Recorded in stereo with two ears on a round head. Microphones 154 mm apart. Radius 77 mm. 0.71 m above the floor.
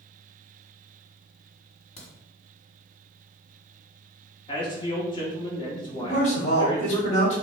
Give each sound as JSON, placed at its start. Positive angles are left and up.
{"t": 2.0, "sound": "a crack", "side_deg": 35, "distance_m": 1.4}
{"t": 4.5, "sound": "a man speaking", "side_deg": 25, "distance_m": 1.1}
{"t": 6.0, "sound": "a man speaking", "side_deg": 40, "distance_m": 1.5}